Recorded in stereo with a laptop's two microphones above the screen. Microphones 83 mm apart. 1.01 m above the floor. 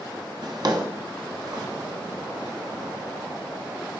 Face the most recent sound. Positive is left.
turn(degrees=-50)  # may be behind; listen again after turning